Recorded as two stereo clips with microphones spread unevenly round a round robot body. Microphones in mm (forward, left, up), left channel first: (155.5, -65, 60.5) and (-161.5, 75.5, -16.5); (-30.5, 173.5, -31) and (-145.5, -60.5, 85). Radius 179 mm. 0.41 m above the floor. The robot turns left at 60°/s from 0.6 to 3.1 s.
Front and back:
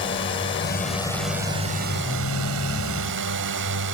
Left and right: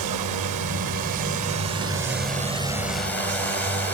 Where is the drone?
85° right; by 3.9 s 125° left.